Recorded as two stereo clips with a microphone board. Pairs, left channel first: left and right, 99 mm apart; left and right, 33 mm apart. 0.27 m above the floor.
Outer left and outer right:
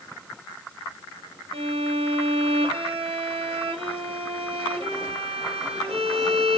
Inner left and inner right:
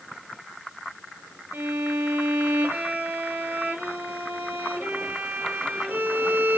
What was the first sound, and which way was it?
A violin, 70° right (ahead or behind).